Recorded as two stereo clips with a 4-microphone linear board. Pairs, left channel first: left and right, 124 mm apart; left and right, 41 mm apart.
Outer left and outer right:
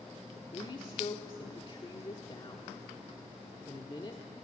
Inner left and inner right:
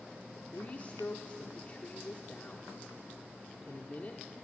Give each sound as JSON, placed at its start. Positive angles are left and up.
{"t": 0.5, "sound": "a woman speaking", "side_deg": 40, "distance_m": 1.4}